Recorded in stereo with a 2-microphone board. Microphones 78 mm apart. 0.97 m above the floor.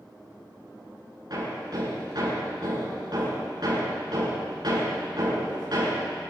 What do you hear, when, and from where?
1.3 s hammering: 60° right (ahead or behind), 8 m